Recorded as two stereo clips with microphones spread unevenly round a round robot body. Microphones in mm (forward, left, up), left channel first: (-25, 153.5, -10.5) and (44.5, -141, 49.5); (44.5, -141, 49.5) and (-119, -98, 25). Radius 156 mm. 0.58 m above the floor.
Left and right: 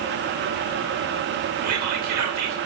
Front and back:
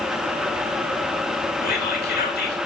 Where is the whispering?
35° right, 3 m.